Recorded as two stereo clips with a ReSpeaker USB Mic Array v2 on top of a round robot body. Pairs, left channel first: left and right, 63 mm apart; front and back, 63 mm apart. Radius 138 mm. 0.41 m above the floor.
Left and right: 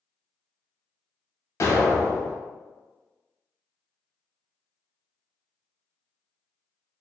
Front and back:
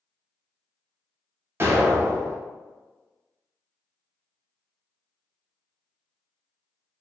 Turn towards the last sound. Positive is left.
turn(degrees=130)